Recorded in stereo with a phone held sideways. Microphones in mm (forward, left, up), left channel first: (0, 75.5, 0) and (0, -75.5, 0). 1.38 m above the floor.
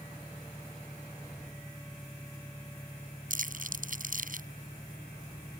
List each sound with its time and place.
0.0 s an engine running: 5° left (ahead or behind)
3.3 s crumpling: 65° right (ahead or behind)